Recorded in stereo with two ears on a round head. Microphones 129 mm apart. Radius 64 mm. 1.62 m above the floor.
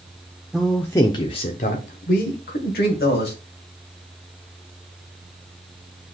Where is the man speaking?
5° right (ahead or behind), 0.5 m; by 3.3 s 85° left, 1.4 m.